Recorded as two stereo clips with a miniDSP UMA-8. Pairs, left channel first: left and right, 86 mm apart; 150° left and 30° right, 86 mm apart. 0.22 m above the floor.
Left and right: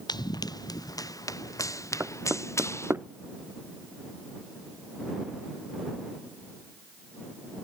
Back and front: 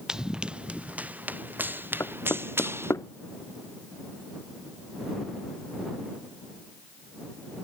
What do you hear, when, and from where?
0.1 s running footsteps: 55° left; by 2.9 s 30° left
2.0 s knocking: 150° right